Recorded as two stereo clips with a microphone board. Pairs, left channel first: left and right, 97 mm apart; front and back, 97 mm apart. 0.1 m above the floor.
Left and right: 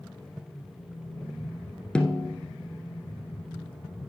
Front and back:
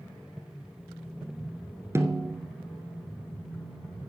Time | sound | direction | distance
1.9 | a snare drum | 160° left | 1.1 m